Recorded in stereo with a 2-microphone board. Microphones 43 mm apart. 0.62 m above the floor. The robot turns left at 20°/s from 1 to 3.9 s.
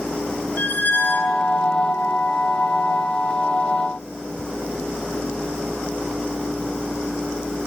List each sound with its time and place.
0.6 s a squeak: 50° left (ahead or behind), 2 m; by 1.5 s 60° left (ahead or behind), 2 m